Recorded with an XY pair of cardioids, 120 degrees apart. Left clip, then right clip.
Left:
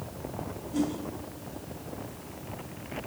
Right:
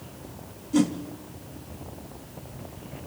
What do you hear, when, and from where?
0.7 s a whoosh: 60° right, 2.5 m